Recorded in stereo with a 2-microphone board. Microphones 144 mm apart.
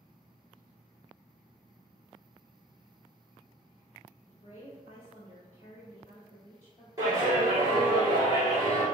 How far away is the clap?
About 1.5 m.